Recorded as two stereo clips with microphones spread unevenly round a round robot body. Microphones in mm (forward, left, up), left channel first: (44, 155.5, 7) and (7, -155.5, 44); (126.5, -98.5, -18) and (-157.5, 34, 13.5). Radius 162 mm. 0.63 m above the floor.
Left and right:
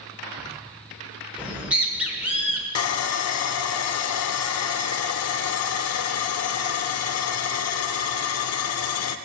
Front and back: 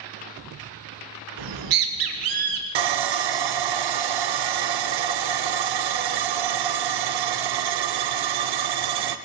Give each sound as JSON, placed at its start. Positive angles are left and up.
{"t": 1.4, "sound": "a bird", "azimuth_deg": 175, "distance_m": 1.3}
{"t": 2.8, "sound": "sawing", "azimuth_deg": 130, "distance_m": 0.5}